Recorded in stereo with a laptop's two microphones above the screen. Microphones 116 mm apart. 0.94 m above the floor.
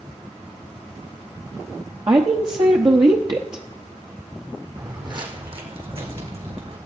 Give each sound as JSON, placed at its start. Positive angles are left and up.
{"t": 2.1, "sound": "a woman speaking", "side_deg": -35, "distance_m": 0.9}
{"t": 4.8, "sound": "footsteps", "side_deg": -30, "distance_m": 1.4}